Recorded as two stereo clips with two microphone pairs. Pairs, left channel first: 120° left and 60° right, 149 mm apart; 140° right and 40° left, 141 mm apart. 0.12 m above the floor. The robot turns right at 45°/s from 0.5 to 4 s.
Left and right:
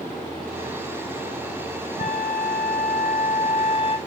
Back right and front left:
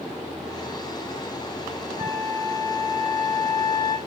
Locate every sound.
2.0 s a flute: 80° left, 3 m; by 4.0 s 170° left, 3 m